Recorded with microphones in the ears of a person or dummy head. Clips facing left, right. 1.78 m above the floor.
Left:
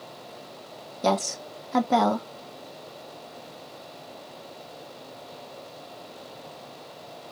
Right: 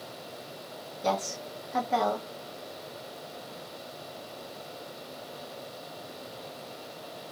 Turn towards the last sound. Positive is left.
turn(degrees=55)  # may be behind; listen again after turning